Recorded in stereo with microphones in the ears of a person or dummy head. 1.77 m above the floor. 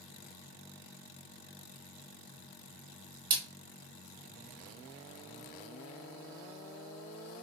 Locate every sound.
3.3 s a splash: 45° right (ahead or behind), 1.9 m